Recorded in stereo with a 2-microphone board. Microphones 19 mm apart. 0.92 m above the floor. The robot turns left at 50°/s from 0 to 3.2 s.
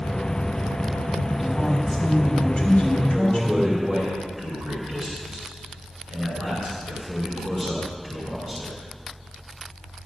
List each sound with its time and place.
1.3 s a woman speaking: 170° right, 4 m; by 3.8 s 95° left, 4 m
3.1 s a man speaking: 5° right (ahead or behind), 3 m; by 8.8 s centre (ahead or behind), 3 m